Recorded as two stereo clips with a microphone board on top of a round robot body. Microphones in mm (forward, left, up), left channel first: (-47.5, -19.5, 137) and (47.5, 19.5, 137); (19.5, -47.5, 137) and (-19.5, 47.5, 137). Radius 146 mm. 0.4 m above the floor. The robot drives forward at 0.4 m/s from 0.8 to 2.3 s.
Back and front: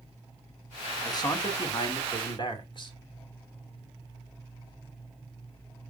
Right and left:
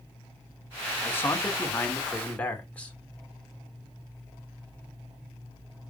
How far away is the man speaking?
About 1.8 m.